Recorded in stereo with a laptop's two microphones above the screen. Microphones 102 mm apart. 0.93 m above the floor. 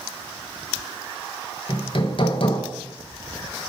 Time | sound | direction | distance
1.7 | hammering | 55° left (ahead or behind) | 1.0 m